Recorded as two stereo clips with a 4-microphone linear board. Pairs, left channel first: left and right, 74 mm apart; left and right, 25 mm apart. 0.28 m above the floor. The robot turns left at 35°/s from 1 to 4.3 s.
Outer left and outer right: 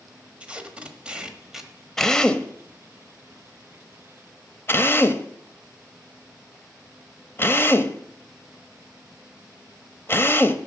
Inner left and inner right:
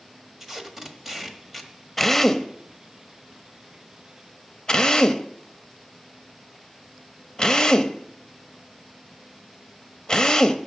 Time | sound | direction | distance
0.4 | tape being pulled | 15° right (ahead or behind) | 1.2 m
2.0 | a drill | 5° left (ahead or behind) | 0.7 m